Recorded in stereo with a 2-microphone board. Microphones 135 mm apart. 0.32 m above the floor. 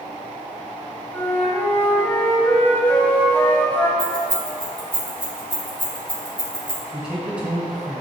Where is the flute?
15° left (ahead or behind), 1.2 m.